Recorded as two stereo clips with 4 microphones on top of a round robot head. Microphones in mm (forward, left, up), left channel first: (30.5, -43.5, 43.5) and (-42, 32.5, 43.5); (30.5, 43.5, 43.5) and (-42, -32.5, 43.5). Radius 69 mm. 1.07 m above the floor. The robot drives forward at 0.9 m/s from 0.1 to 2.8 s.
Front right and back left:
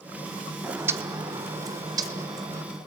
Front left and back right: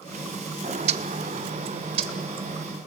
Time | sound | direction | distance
0.6 | a bird | 150° right | 0.8 m